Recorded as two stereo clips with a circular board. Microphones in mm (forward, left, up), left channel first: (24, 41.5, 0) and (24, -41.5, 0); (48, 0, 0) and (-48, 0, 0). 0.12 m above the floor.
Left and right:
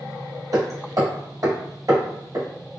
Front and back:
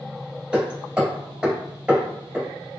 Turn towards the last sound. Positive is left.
turn(degrees=-105)